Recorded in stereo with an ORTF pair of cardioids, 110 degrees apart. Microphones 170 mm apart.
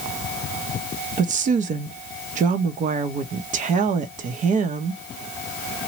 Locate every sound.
1.2 s a woman speaking: 50° right, 0.7 m